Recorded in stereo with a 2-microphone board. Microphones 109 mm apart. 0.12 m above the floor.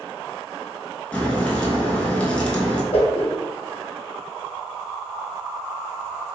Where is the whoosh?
60° left (ahead or behind), 0.9 m.